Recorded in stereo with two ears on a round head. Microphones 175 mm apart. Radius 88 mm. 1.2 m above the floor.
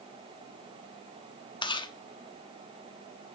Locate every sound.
1.6 s chewing: 25° left (ahead or behind), 1.1 m